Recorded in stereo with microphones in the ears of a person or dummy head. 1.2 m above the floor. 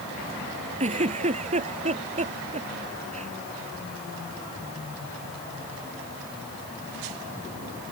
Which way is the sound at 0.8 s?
30° right (ahead or behind).